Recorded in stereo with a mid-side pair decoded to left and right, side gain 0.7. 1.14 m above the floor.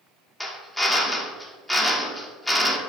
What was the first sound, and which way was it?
A drill, 10° left.